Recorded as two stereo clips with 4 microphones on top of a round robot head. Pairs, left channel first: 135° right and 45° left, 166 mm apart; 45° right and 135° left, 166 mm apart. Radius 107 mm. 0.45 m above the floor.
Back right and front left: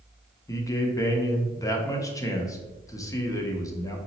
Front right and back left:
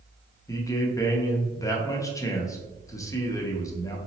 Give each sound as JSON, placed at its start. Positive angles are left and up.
{"t": 0.5, "sound": "a man speaking", "azimuth_deg": -90, "distance_m": 0.7}